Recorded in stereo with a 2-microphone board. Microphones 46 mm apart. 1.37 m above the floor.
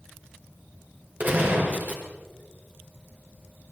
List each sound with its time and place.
1.2 s a gunshot: 45° right (ahead or behind), 6 m